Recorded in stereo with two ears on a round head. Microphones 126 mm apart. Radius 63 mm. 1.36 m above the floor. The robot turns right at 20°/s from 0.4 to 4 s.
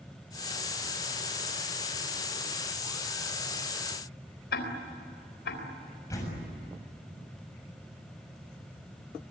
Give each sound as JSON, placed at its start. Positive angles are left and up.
{"t": 4.5, "sound": "ticking", "side_deg": 85, "distance_m": 4.0}
{"t": 6.1, "sound": "a door slam", "side_deg": 20, "distance_m": 7.0}